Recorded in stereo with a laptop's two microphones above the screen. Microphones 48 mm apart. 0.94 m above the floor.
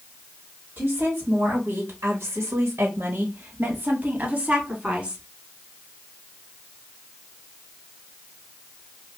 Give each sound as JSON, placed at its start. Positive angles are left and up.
{"t": 0.8, "sound": "a woman speaking", "side_deg": -45, "distance_m": 1.9}